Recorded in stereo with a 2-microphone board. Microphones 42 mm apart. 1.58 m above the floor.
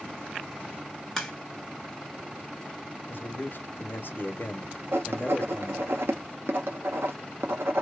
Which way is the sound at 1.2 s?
5° left (ahead or behind).